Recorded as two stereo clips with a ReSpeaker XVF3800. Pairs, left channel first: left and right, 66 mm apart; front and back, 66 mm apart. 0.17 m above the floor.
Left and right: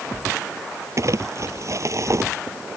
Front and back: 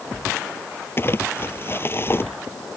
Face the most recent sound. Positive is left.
turn(degrees=-50)